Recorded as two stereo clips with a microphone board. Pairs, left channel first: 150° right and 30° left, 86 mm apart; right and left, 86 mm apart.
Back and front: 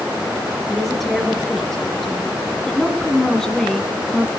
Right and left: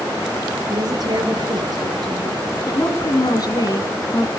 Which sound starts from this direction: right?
A woman speaking, at 2.7 s.